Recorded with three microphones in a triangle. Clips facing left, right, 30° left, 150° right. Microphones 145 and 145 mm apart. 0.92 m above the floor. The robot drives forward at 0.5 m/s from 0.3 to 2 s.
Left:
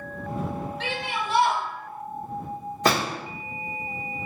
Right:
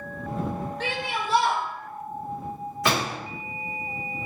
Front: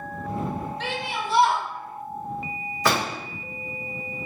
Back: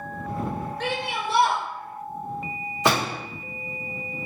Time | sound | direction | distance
0.8 | a shout | 125° right | 0.7 m
2.9 | a door slam | 140° left | 1.1 m